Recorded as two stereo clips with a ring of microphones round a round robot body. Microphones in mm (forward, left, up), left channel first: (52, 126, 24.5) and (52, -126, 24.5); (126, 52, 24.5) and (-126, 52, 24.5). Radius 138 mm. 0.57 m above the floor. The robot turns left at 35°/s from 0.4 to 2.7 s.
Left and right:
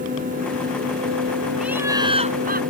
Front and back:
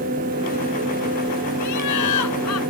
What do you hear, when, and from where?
1.6 s laughter: 5° right; by 2.6 s 40° right